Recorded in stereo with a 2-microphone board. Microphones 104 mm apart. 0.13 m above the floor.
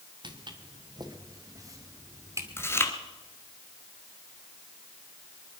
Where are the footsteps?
45° right (ahead or behind), 2 m; by 2.7 s 25° right (ahead or behind), 3 m.